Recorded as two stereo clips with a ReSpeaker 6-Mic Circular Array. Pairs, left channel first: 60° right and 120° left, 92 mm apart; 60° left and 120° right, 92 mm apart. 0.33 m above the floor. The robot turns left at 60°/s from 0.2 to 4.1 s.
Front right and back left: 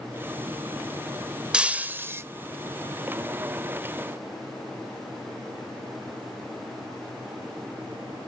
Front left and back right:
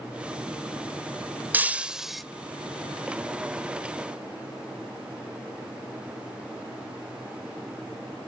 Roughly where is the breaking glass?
Behind.